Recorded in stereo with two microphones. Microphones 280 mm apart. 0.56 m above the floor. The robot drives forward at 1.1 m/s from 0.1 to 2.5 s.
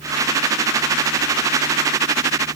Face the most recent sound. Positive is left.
No sound to turn to.